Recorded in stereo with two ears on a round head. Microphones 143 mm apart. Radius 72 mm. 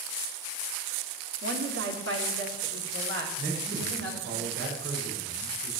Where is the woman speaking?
80° right, 3 m.